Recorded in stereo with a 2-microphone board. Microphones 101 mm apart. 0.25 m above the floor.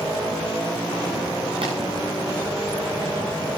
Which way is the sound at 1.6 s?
65° right (ahead or behind).